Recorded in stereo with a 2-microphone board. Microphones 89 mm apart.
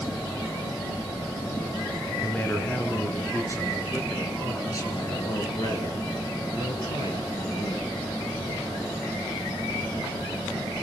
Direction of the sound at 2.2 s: 15° left (ahead or behind).